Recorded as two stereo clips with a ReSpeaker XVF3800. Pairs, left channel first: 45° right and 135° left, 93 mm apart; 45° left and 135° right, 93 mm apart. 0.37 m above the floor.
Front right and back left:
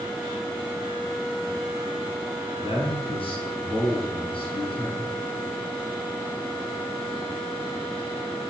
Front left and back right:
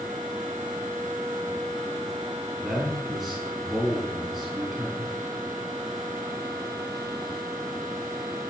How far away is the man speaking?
About 4 m.